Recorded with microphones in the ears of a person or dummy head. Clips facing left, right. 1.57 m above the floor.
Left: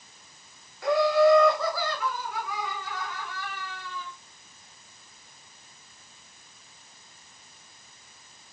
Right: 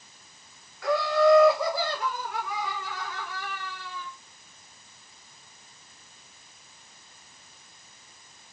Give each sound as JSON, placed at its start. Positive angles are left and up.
{"t": 0.8, "sound": "laughter", "side_deg": 20, "distance_m": 1.0}